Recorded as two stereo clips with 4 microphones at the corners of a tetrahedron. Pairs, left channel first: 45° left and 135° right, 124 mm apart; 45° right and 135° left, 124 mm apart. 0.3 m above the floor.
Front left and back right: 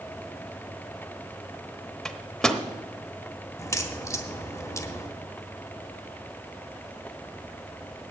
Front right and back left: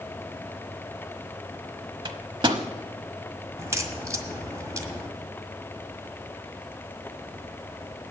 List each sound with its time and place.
2.0 s a microwave: 130° left, 0.9 m
3.6 s a crack: 90° left, 1.5 m